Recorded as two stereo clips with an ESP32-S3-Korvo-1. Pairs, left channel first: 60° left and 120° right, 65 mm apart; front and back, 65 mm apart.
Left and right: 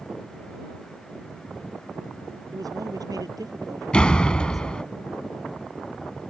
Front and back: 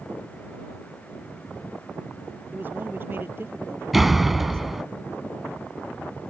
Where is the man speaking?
125° right; by 4.9 s 135° right.